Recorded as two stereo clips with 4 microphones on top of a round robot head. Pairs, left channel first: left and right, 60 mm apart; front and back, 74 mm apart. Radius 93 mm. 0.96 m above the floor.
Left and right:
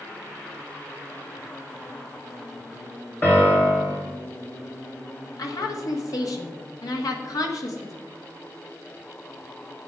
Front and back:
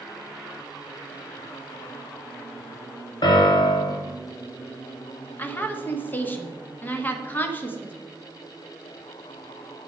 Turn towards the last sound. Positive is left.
turn(degrees=65)